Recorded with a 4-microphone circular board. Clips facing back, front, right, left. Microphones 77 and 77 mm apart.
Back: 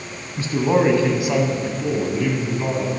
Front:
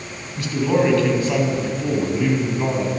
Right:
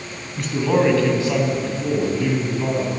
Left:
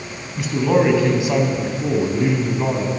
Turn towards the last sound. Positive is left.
turn(degrees=60)